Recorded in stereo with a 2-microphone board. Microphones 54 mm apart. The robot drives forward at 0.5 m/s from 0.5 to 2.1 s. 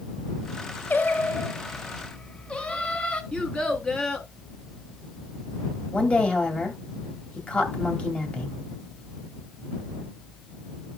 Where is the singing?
35° left (ahead or behind), 0.6 m; by 3.2 s 20° left (ahead or behind), 1.1 m.